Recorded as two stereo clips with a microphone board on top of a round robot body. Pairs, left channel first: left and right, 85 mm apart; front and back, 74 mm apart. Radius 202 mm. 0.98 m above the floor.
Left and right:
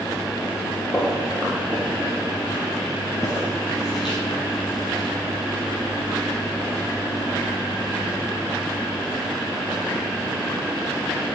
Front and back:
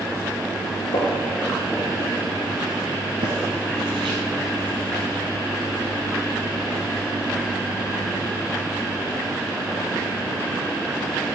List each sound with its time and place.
0.9 s footsteps: 10° right, 1.3 m; by 5.1 s straight behind, 3 m